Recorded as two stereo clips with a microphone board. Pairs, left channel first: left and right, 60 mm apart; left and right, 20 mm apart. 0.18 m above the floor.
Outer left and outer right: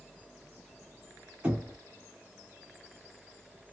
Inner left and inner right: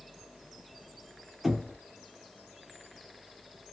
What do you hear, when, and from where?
1.4 s knocking: 15° right (ahead or behind), 1.6 m